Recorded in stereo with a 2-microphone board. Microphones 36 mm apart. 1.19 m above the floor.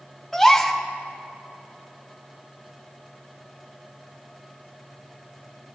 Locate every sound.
0.3 s a gasp: 10° left (ahead or behind), 1.5 m